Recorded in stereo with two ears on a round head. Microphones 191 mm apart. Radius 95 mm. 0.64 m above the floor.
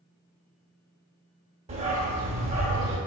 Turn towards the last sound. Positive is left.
turn(degrees=-30)  # may be behind; listen again after turning